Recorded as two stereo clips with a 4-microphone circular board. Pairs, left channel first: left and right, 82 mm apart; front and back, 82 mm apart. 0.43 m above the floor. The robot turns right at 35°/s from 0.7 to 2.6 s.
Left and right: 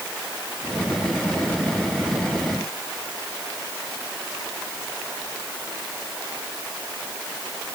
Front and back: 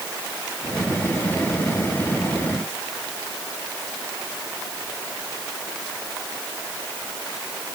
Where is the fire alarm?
I don't hear a fire alarm.